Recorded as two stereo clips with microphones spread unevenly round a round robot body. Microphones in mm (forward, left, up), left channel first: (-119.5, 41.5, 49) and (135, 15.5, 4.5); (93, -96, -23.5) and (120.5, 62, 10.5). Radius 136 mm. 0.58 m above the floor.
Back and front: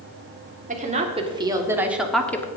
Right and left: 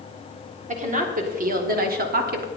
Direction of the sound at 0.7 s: 40° left.